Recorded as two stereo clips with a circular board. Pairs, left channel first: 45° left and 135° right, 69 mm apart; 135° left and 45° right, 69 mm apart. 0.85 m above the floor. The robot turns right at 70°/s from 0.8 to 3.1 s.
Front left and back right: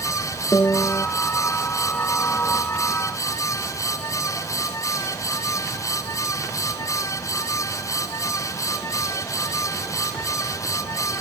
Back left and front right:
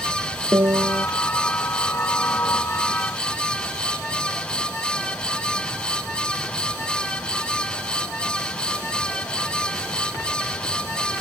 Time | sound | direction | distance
0.5 | a piano | 15° right | ?